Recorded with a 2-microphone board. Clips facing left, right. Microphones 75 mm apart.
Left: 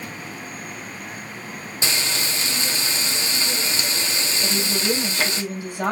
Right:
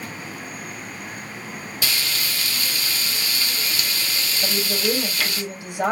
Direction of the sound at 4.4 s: 20° right (ahead or behind).